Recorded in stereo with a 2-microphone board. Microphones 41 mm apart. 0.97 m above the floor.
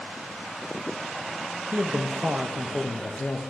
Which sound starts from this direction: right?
A man speaking, at 1.7 s.